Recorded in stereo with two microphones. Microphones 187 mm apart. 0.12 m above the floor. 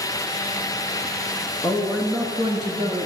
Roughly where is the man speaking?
Centre.